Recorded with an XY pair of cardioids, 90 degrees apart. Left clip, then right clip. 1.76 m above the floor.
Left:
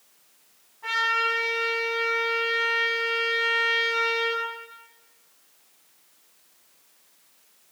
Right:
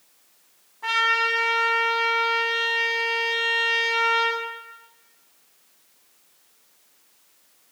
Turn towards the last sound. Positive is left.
turn(degrees=-55)